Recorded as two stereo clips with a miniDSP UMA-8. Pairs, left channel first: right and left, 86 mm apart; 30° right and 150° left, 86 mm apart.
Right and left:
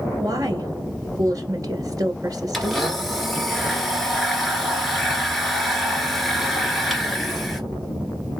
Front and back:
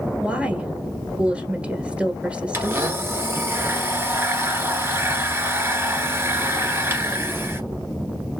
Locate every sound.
0.2 s a woman speaking: 80° left, 1.8 m
2.5 s a blender: straight behind, 1.4 m